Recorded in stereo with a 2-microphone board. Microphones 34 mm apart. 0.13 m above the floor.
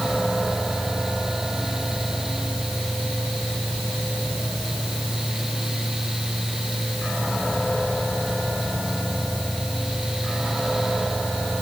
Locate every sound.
Only background noise.